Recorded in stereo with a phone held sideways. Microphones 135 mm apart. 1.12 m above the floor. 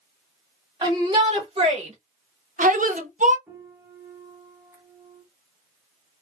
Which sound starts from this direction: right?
A shout, at 0.8 s.